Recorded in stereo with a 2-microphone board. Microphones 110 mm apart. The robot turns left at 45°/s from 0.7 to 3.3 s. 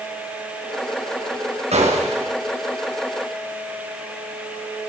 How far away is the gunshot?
About 4.5 m.